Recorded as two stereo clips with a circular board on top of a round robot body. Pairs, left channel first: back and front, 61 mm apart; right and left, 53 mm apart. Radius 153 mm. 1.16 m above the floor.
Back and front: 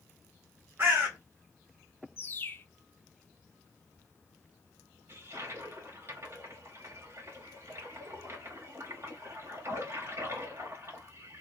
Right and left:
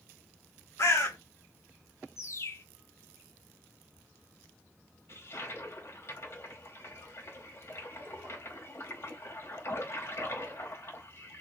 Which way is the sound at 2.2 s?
120° right.